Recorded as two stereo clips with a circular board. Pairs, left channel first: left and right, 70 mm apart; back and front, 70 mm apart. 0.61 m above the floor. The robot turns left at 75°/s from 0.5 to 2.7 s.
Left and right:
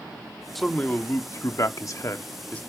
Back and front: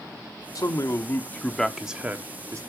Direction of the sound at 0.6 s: Straight behind.